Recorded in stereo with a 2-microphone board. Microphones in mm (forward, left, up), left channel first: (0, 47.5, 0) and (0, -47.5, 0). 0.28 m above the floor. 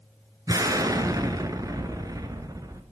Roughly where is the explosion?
Right.